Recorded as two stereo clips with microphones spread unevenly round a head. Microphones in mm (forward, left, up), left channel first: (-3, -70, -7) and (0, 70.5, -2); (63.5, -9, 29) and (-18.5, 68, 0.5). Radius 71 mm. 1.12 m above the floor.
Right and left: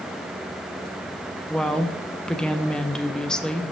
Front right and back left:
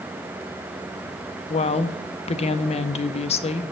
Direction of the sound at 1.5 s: 5° right.